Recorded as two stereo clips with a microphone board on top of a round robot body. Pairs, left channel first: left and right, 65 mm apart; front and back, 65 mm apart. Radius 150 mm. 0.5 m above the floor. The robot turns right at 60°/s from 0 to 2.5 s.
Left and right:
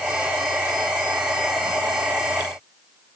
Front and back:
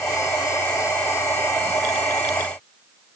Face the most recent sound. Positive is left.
No sound to turn to.